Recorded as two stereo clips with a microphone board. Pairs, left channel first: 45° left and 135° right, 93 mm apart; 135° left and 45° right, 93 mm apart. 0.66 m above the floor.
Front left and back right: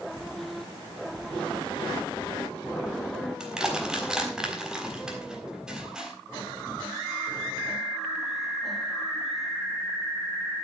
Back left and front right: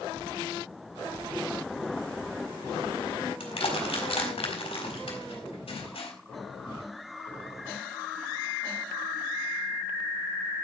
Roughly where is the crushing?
Behind left.